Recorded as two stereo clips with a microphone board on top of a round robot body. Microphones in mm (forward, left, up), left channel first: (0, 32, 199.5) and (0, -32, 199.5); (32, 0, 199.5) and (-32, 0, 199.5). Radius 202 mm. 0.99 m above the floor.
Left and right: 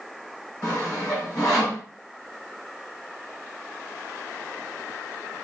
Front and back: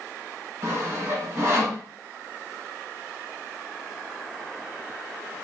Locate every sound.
0.6 s sawing: 130° left, 3 m